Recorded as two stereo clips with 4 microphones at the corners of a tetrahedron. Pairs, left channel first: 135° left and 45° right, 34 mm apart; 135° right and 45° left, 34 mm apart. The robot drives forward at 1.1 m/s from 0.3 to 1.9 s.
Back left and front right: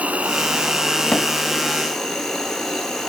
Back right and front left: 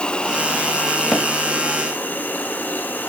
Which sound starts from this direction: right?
An insect, at 0.0 s.